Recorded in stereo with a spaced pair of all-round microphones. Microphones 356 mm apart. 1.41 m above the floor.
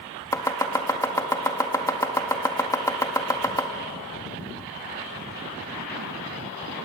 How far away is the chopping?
About 1.9 m.